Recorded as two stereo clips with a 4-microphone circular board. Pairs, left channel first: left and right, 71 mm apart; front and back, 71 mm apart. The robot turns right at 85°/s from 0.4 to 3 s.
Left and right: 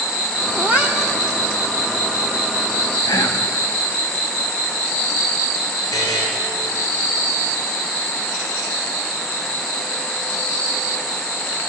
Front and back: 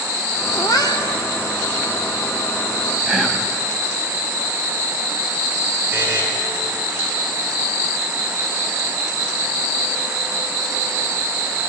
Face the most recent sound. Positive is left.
turn(degrees=120)